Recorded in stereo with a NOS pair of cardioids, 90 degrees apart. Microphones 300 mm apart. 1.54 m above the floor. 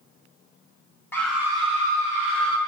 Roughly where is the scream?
Ahead.